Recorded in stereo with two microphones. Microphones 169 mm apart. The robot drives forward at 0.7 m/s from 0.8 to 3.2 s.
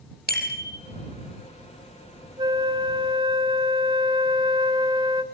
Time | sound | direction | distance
0.3 | a bicycle bell | 70° left (ahead or behind) | 3.5 m
2.4 | a flute | 25° right (ahead or behind) | 1.2 m